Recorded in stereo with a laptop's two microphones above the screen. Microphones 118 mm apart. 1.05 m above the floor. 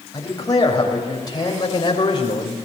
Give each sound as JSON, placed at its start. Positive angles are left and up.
{"t": 0.1, "sound": "a man speaking", "side_deg": 30, "distance_m": 6.0}